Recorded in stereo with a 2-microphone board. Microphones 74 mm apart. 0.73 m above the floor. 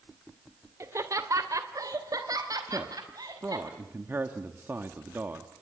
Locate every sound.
0.8 s laughter: 40° right (ahead or behind), 1.8 m; by 3.7 s 60° right (ahead or behind), 5.5 m
2.7 s a man speaking: 30° right (ahead or behind), 1.4 m